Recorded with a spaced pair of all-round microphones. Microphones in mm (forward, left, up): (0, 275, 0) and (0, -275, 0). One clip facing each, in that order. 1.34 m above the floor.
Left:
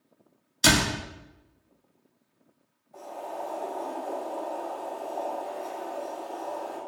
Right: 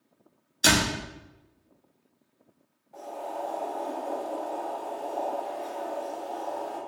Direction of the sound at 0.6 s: 25° left (ahead or behind).